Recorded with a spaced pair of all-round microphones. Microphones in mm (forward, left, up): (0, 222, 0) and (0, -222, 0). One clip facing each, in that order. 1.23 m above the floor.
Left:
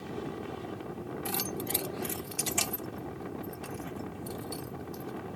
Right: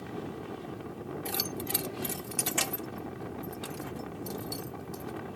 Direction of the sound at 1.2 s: 25° left (ahead or behind).